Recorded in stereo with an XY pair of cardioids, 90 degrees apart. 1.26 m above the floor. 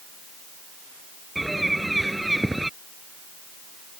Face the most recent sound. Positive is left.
turn(degrees=-10)